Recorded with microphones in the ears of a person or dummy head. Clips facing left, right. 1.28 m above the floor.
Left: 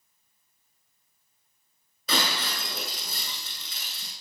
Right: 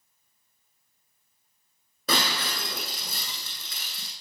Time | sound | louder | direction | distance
2.1 | breaking glass | right 1 dB | 60° right (ahead or behind) | 8 m